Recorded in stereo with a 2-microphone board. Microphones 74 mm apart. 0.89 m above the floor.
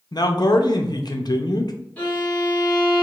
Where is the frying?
I don't hear frying.